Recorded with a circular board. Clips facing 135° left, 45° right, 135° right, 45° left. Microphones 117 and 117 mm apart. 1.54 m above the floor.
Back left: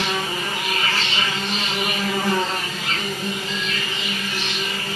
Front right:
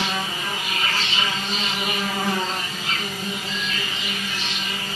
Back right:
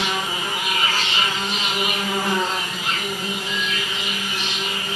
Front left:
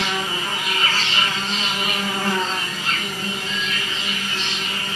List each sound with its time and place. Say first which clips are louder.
0.0 s an insect: back left 2 dB, even; 150° left, 0.8 m